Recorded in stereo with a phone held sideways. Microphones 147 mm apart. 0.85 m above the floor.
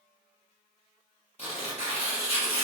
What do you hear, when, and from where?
1.4 s tearing paper: 45° left (ahead or behind), 1.0 m